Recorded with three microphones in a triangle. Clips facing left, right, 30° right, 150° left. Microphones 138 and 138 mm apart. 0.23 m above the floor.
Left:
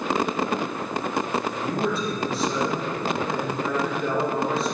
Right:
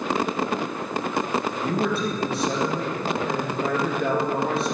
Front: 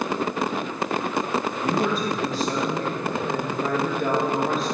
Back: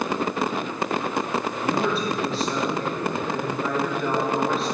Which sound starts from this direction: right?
A man speaking, at 1.6 s.